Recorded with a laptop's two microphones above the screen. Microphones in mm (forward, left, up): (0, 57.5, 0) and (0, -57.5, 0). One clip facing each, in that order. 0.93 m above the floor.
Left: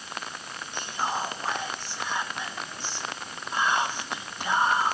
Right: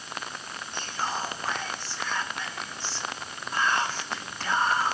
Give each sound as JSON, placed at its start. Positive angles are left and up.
{"t": 0.7, "sound": "whispering", "side_deg": 15, "distance_m": 0.6}